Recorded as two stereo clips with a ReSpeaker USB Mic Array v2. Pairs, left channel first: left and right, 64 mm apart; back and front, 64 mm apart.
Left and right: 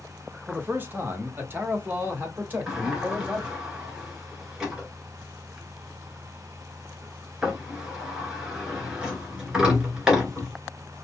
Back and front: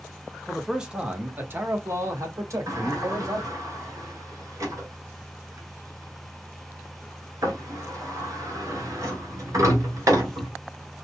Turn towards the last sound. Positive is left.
turn(degrees=-15)